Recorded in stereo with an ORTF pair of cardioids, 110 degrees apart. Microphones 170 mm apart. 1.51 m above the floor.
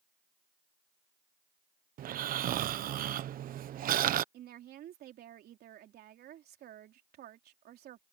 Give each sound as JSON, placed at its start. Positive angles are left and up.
{"t": 2.0, "sound": "snoring", "azimuth_deg": -55}
{"t": 4.3, "sound": "a woman speaking", "azimuth_deg": -65}